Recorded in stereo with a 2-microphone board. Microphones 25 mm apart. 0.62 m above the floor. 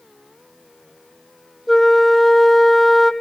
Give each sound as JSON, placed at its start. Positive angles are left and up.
{"t": 1.7, "sound": "a flute", "side_deg": 10, "distance_m": 1.3}